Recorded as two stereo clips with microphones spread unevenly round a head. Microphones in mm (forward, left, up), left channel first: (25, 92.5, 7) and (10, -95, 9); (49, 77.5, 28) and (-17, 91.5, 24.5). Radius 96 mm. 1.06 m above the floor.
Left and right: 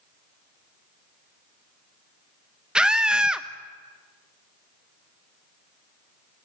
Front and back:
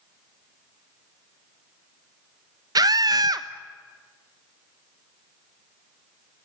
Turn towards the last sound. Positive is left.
turn(degrees=180)